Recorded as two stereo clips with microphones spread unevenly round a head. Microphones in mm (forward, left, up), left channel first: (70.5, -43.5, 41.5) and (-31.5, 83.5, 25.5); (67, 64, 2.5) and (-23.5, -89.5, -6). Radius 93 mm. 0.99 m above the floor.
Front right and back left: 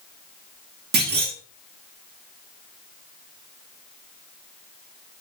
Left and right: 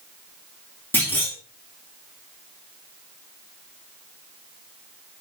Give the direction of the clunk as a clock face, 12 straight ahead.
7 o'clock.